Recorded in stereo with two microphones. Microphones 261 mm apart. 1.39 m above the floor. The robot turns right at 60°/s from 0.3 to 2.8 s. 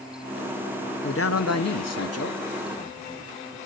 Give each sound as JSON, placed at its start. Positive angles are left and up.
{"t": 1.0, "sound": "a man speaking", "azimuth_deg": 50, "distance_m": 0.6}